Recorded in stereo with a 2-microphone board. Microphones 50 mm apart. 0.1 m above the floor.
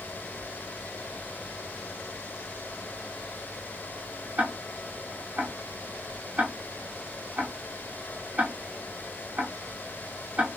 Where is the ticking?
30° right (ahead or behind), 0.8 m.